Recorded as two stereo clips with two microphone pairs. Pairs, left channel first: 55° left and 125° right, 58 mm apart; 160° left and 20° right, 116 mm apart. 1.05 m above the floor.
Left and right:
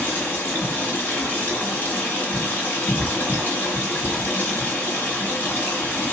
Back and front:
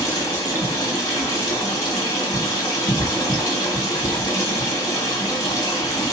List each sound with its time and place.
0.0 s running water: 110° left, 1.4 m